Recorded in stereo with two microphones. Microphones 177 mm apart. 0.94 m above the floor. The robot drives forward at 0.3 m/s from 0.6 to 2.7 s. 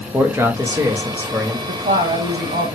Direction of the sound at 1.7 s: 50° right (ahead or behind).